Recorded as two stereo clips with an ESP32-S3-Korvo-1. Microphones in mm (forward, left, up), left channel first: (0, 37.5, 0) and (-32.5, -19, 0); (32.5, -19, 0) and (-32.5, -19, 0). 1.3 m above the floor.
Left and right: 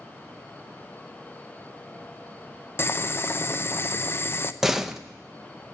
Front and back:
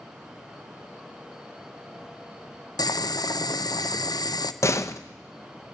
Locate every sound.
2.8 s boiling: 10° left, 0.6 m
4.6 s a door slam: 40° right, 0.7 m